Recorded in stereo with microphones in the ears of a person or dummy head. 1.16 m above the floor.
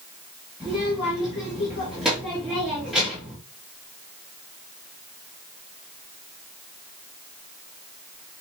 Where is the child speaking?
5° right (ahead or behind), 1.9 m.